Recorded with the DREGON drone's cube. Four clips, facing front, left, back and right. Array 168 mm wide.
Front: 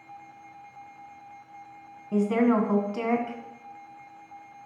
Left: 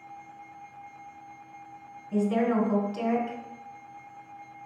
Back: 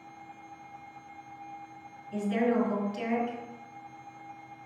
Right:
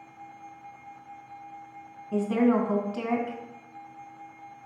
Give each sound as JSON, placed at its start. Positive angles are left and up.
{"t": 2.1, "sound": "a woman speaking", "azimuth_deg": -20, "distance_m": 2.0}